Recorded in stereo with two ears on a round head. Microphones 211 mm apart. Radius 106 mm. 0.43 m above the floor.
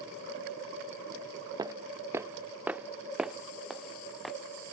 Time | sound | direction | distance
1.6 | footsteps | 15° right (ahead or behind) | ?